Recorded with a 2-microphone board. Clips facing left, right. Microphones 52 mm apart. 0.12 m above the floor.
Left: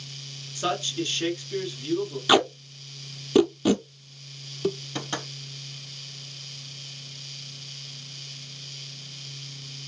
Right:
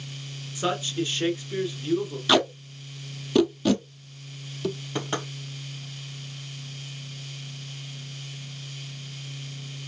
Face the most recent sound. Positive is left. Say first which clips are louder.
# right 3 dB
turn(degrees=-15)  # may be behind; listen again after turning